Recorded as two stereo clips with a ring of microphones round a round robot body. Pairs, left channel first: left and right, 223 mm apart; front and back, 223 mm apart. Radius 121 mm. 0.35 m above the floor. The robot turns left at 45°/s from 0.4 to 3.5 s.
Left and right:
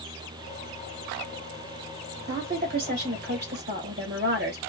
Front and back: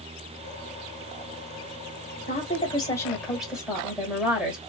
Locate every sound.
2.3 s a woman speaking: 40° right, 1.5 m; by 4.6 s 95° right, 1.5 m